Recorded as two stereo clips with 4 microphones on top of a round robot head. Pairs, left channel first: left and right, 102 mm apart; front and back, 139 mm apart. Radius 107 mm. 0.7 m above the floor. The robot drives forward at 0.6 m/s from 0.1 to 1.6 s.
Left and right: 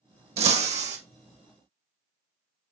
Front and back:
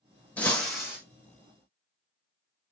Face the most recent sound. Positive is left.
turn(degrees=-105)